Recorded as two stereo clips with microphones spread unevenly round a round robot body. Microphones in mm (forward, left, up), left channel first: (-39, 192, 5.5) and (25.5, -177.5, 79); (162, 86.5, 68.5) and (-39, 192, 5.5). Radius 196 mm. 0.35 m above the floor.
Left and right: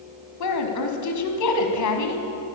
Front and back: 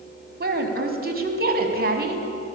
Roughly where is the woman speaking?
Behind left.